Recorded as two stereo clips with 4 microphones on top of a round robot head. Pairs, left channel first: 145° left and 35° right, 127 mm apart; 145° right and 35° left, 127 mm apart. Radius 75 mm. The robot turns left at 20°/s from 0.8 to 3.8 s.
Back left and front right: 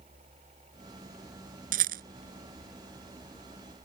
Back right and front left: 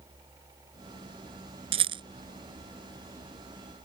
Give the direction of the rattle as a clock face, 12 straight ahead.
12 o'clock.